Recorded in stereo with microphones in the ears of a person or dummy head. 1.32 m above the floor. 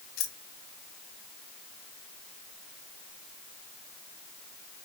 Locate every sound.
0.2 s keys jangling: 70° left (ahead or behind), 1.0 m